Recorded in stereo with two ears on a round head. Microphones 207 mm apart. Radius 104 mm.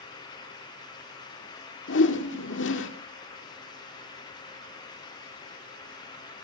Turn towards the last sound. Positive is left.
turn(degrees=55)  # may be behind; listen again after turning